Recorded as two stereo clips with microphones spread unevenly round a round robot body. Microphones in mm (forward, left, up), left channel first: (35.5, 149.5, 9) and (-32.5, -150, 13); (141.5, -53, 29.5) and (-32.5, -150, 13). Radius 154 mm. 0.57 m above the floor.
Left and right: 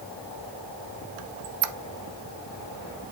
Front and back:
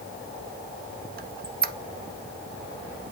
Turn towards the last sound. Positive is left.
turn(degrees=-110)